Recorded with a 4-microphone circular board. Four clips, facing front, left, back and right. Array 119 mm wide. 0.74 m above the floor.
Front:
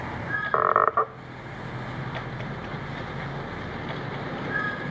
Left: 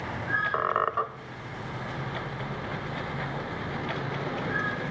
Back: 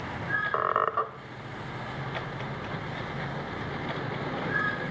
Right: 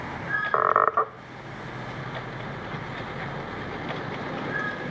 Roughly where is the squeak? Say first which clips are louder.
Right 7 dB, front 6 dB; ahead right.